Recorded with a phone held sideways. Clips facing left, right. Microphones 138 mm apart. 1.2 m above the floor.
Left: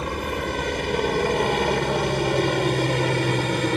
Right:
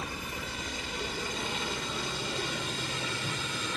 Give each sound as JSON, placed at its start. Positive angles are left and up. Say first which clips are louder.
{"t": 0.0, "sound": "a helicopter", "louder": "left 12 dB", "side_deg": 75}